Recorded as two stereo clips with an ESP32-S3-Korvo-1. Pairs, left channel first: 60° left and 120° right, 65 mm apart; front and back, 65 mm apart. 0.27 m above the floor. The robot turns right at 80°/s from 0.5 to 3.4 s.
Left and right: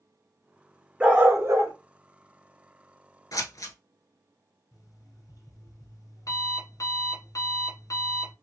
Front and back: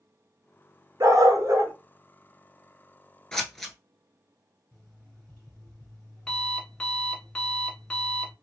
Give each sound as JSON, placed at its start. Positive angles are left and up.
{"t": 1.0, "sound": "a dog barking", "azimuth_deg": 170, "distance_m": 1.0}
{"t": 3.3, "sound": "scissors", "azimuth_deg": 80, "distance_m": 1.0}
{"t": 4.7, "sound": "an alarm clock", "azimuth_deg": 75, "distance_m": 1.8}